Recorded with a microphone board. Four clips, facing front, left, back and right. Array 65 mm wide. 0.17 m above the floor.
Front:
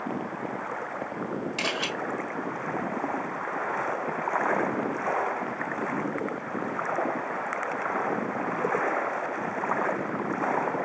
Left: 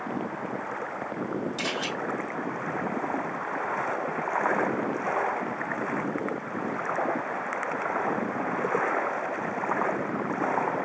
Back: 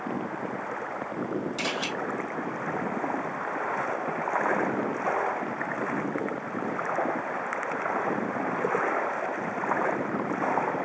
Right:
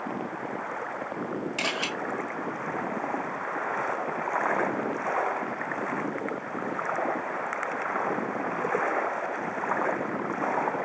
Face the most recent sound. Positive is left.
turn(degrees=-60)